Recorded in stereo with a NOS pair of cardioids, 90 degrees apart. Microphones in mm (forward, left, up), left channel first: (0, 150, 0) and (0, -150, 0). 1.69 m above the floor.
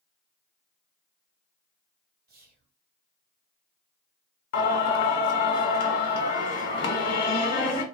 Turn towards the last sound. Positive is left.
turn(degrees=55)